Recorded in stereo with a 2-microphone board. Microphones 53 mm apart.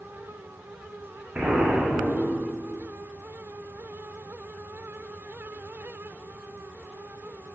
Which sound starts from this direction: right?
An explosion, at 1.4 s.